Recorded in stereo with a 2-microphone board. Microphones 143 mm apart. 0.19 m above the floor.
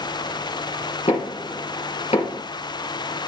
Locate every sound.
1.1 s knocking: 45° left (ahead or behind), 3.5 m